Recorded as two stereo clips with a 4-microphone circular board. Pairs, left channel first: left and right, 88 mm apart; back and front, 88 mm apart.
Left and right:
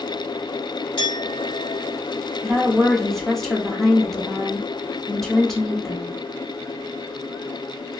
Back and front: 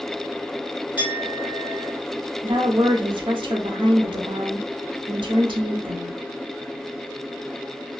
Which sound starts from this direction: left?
A clink, at 1.0 s.